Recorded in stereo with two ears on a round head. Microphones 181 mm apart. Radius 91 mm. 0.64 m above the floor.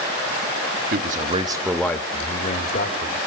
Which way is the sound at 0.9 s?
50° right (ahead or behind).